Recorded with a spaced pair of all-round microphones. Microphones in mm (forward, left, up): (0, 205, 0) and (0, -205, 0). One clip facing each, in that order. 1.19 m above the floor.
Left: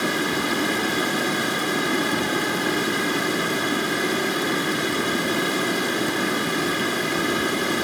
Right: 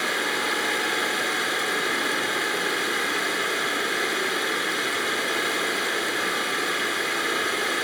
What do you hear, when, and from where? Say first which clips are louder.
0.0 s running water: left 6 dB; 60° left (ahead or behind), 2 m